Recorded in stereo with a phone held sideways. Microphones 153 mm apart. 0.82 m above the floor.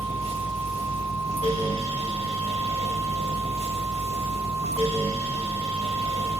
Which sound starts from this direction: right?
A fan, at 0.0 s.